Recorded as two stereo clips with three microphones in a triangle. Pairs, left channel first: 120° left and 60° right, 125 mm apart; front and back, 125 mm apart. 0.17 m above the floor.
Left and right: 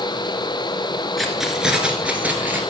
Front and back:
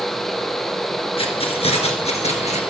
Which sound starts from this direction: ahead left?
Keys jangling, at 1.2 s.